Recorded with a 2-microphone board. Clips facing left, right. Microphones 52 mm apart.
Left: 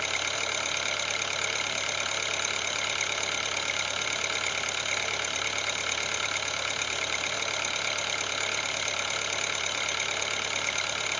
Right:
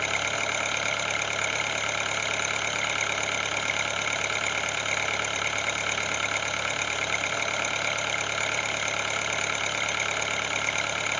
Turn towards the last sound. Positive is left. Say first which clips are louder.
# right 3 dB
turn(degrees=-25)  # may be behind; listen again after turning